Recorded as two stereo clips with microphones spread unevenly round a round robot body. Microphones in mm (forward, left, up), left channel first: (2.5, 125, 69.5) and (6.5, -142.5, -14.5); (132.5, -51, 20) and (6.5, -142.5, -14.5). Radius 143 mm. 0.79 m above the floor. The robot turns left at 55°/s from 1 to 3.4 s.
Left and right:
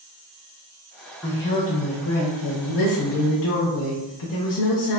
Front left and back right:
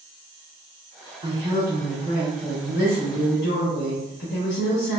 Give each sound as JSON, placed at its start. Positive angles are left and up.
{"t": 1.2, "sound": "a woman speaking", "azimuth_deg": -175, "distance_m": 0.7}